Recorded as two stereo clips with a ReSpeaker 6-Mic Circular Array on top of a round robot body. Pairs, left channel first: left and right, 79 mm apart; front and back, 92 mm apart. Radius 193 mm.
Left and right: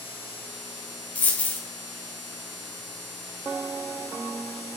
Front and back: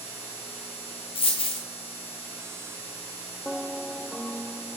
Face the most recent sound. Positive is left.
turn(degrees=20)